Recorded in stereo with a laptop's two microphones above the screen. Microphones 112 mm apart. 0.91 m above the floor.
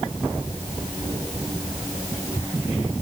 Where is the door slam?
No door slam in this recording.